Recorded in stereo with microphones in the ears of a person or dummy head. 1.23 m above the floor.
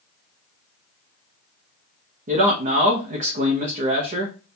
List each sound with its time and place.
2.3 s a man speaking: 40° right (ahead or behind), 0.7 m